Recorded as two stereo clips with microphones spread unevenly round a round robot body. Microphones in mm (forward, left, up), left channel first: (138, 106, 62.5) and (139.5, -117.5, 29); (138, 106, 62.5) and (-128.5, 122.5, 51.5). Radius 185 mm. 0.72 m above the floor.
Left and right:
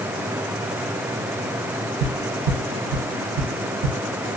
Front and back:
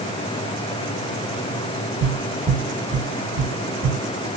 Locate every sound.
2.0 s tapping: 100° right, 1.3 m